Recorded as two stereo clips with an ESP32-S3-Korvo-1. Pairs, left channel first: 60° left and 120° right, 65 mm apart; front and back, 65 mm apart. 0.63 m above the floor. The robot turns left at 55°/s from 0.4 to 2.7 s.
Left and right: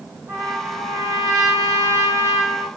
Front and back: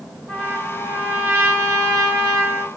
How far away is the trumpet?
About 1.6 m.